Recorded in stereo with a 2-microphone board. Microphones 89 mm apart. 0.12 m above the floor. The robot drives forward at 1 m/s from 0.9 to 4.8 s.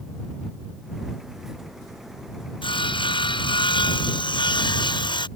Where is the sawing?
70° left (ahead or behind); by 5.3 s 65° left (ahead or behind).